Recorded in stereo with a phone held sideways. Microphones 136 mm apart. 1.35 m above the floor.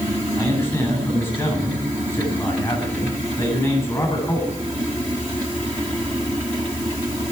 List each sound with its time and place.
0.4 s a man speaking: 20° left (ahead or behind), 9.5 m